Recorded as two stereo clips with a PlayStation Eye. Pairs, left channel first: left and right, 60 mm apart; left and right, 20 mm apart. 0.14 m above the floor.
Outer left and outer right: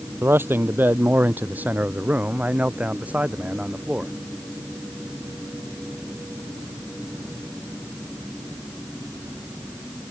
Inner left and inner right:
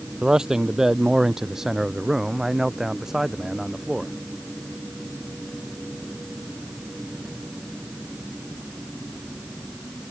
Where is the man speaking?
40° right (ahead or behind); by 4.1 s 20° right (ahead or behind).